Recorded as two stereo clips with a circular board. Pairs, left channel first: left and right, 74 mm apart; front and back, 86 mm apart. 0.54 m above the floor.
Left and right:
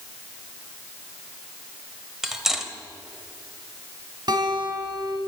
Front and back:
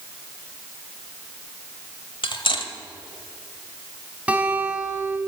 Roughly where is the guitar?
Right.